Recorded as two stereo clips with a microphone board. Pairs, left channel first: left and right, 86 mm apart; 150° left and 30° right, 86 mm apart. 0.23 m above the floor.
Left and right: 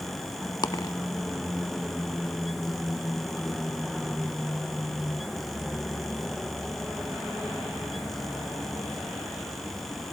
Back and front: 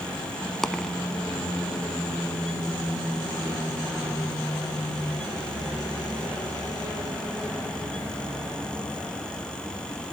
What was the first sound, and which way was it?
A dropped coin, 65° left.